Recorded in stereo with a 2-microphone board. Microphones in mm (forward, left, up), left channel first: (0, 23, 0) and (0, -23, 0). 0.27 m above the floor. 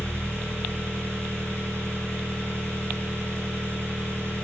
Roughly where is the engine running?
Right.